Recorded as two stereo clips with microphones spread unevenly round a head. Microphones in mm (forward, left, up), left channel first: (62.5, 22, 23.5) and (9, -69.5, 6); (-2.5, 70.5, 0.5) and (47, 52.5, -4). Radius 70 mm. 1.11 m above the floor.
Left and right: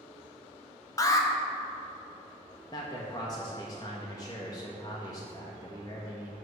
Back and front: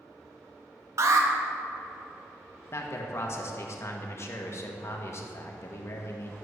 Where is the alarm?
Straight ahead, 1.2 m.